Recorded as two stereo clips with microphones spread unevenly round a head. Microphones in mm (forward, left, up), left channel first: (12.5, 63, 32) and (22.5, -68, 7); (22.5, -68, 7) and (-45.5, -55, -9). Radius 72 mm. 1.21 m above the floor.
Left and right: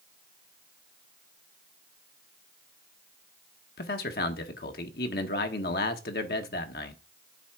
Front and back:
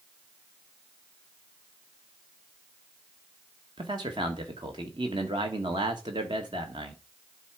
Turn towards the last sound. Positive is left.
turn(degrees=120)